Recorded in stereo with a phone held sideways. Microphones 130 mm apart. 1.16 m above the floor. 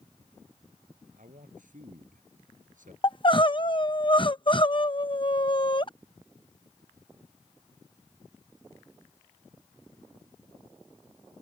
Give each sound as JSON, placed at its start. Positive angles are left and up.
{"t": 1.2, "sound": "a man speaking", "side_deg": -75}
{"t": 3.0, "sound": "crying", "side_deg": 40}